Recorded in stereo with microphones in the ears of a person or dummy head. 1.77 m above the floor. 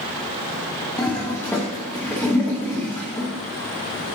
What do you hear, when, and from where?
1.0 s a toilet flushing: 10° left (ahead or behind), 0.9 m